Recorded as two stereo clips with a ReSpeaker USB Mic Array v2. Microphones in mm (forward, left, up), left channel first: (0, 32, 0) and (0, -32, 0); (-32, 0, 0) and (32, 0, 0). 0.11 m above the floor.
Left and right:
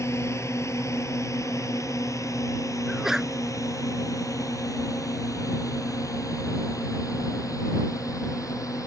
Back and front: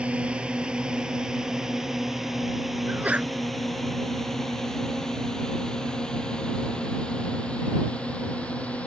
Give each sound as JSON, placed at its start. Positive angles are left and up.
{"t": 0.0, "sound": "a drone", "azimuth_deg": 65}
{"t": 2.9, "sound": "a sneeze", "azimuth_deg": -20}